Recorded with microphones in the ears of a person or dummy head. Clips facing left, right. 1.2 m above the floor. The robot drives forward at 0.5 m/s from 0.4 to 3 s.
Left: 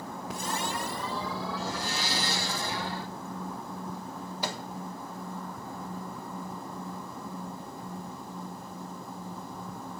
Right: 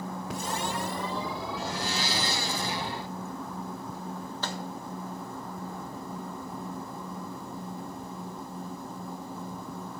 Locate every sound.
1.6 s a blender: 50° right (ahead or behind), 0.7 m
4.4 s a microwave: 15° left (ahead or behind), 1.2 m